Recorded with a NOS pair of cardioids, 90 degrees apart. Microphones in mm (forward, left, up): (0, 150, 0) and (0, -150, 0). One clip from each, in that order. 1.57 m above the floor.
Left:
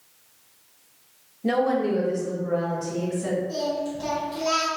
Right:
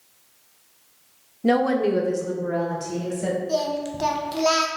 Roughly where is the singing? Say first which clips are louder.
Right 3 dB; ahead right.